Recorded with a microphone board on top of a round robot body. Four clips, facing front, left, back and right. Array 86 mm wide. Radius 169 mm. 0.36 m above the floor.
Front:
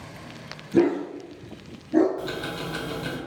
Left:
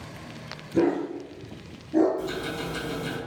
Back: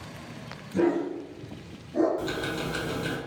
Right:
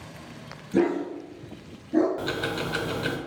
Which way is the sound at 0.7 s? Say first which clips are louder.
Even, front 4 dB; 40° right.